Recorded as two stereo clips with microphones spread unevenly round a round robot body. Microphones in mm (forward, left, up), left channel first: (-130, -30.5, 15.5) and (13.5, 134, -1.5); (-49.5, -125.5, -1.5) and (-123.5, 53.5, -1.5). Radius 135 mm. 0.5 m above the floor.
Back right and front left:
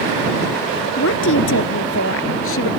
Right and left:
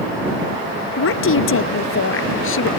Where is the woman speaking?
80° right; by 2.7 s 85° right.